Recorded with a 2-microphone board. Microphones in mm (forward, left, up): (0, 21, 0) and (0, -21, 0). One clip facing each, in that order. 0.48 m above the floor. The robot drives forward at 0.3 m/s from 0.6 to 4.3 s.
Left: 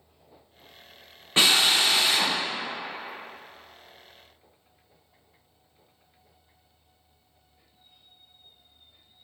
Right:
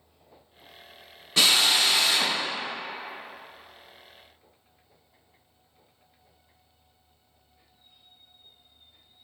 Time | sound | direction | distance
1.4 | a drill | 30° left (ahead or behind) | 0.5 m